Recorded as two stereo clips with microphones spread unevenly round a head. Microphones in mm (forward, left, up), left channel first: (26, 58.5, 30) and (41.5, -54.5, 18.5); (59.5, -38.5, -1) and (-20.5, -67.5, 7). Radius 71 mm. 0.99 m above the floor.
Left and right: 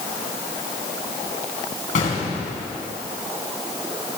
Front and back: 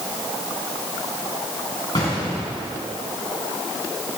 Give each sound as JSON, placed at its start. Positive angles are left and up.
{"t": 1.9, "sound": "an explosion", "azimuth_deg": 85, "distance_m": 4.0}